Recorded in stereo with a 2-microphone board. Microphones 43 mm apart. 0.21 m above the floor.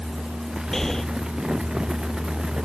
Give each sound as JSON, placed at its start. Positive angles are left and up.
{"t": 0.7, "sound": "breathing", "side_deg": 10}